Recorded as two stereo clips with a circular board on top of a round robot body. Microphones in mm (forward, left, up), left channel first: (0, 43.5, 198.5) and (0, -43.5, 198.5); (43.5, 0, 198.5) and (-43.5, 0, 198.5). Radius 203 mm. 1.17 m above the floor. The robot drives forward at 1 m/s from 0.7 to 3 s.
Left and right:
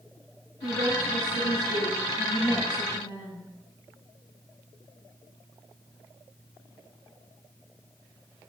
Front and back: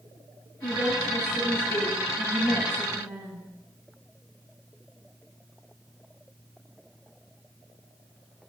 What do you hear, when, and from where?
0.6 s a woman speaking: 105° left, 5 m; by 3.5 s 125° left, 6 m